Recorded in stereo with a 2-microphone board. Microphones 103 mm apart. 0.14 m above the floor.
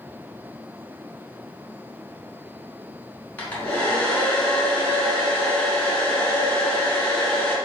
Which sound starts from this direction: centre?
A hair dryer, at 3.4 s.